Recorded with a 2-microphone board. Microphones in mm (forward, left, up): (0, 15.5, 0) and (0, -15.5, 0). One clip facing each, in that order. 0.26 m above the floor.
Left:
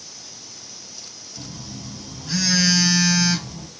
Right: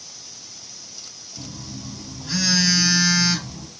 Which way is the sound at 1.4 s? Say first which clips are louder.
Right 1 dB; 5° right (ahead or behind).